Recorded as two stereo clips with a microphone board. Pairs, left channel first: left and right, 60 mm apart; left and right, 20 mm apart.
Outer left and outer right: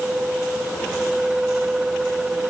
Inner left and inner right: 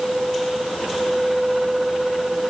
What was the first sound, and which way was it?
Only background noise.